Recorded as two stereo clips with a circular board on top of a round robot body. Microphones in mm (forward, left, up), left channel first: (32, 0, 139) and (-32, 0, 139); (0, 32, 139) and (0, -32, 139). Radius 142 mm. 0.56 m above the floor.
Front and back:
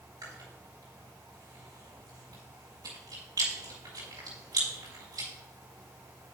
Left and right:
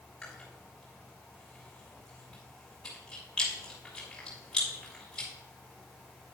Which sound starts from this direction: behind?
Chewing, at 0.2 s.